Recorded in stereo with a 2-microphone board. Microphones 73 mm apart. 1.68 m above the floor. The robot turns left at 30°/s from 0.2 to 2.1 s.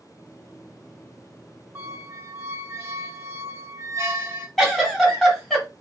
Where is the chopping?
I don't hear chopping.